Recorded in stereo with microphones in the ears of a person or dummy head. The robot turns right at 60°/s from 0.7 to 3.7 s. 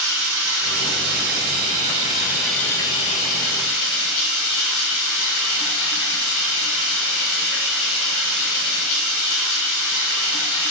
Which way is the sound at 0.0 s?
110° right.